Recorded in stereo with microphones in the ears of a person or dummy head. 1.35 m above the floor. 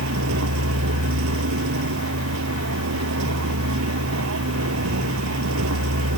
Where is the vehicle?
75° right (ahead or behind).